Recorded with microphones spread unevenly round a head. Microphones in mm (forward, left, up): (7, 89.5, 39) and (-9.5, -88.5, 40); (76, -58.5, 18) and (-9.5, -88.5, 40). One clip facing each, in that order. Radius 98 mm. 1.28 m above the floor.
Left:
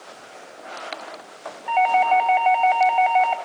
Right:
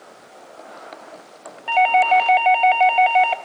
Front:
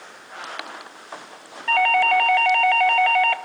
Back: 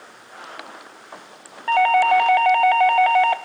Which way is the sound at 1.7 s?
95° right.